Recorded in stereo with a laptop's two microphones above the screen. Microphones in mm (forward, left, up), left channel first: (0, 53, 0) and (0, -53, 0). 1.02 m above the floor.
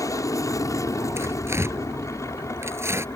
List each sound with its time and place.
0.0 s an aircraft: 30° left (ahead or behind)
1.2 s tearing paper: 25° right (ahead or behind)